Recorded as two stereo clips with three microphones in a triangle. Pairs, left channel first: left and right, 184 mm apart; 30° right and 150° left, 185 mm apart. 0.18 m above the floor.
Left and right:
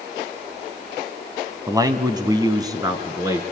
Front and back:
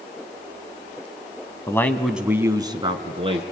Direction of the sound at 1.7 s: 65° right.